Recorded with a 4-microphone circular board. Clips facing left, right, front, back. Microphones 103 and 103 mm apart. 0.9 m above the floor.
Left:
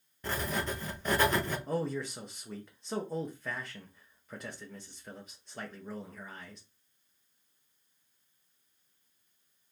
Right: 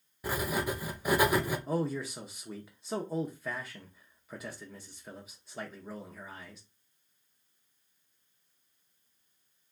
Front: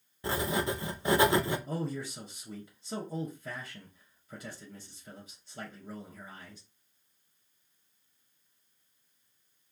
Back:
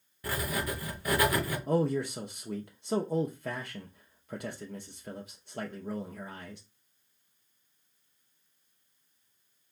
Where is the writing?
25° right, 0.6 m.